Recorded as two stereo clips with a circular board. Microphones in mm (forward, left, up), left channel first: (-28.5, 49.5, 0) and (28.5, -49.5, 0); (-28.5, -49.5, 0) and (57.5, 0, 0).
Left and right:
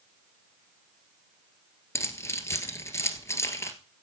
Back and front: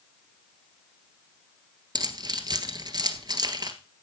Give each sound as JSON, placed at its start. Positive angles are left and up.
{"t": 1.9, "sound": "keys jangling", "azimuth_deg": 60, "distance_m": 1.6}